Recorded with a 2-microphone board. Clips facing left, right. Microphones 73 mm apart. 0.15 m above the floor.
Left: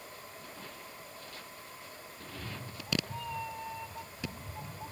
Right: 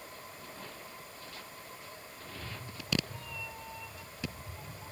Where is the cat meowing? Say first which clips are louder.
Left 2 dB; 60° left (ahead or behind), 1.3 m.